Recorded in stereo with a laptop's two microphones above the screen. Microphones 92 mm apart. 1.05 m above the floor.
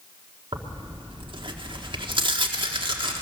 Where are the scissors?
No scissors in this recording.